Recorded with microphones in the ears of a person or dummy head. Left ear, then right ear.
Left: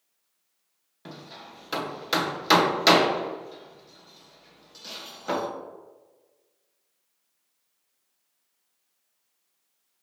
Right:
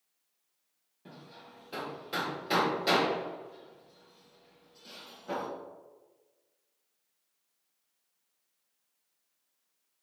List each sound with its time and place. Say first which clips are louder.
1.1 s hammering: left 8 dB; 50° left (ahead or behind), 0.6 m